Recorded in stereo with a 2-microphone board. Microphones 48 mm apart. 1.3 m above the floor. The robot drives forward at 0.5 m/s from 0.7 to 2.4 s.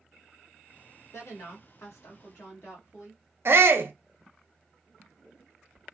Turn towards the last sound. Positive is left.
turn(degrees=-60)  # may be behind; listen again after turning